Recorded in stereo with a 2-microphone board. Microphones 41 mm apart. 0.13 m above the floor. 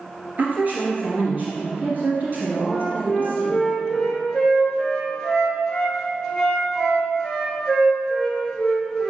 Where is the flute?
15° left (ahead or behind), 1.6 m.